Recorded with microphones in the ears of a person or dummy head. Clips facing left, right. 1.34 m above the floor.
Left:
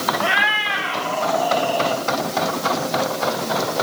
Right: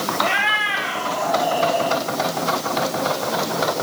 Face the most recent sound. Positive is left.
turn(degrees=-15)  # may be behind; listen again after turning